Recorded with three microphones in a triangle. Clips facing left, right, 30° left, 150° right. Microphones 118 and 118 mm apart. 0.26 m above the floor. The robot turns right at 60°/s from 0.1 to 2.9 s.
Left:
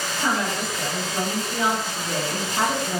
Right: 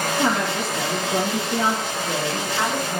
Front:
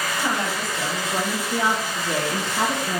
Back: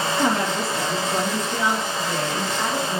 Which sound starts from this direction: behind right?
A woman speaking, at 0.2 s.